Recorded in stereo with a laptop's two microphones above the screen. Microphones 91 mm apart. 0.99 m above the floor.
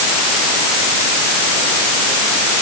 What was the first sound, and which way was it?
Only background noise.